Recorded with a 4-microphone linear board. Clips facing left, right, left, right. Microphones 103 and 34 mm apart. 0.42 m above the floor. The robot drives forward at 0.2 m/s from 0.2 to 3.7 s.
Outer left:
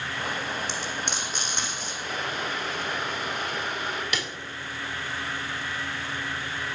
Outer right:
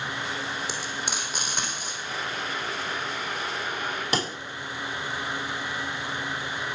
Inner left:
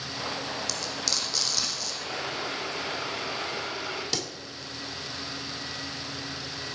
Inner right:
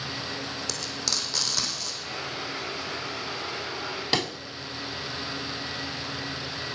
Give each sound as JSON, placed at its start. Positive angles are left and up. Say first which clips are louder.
{"t": 0.7, "sound": "frying", "louder": "outer left 1 dB, even", "side_deg": -5, "distance_m": 4.0}
{"t": 2.0, "sound": "boiling", "louder": "outer left 2 dB, inner left 3 dB", "side_deg": 85, "distance_m": 5.0}
{"t": 4.1, "sound": "a pop", "louder": "outer right 4 dB, inner right 6 dB", "side_deg": -35, "distance_m": 0.5}